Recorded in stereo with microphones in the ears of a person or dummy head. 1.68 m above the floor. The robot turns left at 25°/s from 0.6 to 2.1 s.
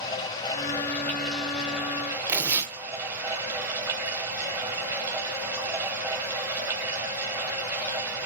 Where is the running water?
20° left, 3 m; by 8.3 s 20° right, 3 m.